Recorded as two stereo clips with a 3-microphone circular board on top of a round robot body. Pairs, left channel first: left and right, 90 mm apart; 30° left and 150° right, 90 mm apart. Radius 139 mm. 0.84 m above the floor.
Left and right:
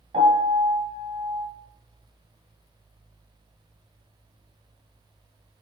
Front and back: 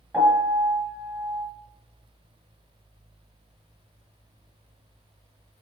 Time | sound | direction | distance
0.1 | a piano | 75° right | 1.6 m